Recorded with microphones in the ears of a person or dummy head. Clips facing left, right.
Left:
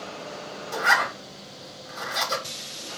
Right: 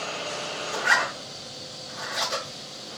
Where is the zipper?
70° left (ahead or behind), 1.9 m.